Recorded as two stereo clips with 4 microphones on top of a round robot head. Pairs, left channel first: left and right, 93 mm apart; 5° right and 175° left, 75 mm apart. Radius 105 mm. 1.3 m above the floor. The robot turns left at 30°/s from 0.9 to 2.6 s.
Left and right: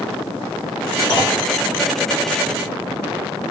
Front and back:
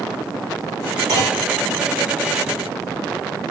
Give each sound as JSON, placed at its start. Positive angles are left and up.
{"t": 1.1, "sound": "a clunk", "azimuth_deg": 130, "distance_m": 1.5}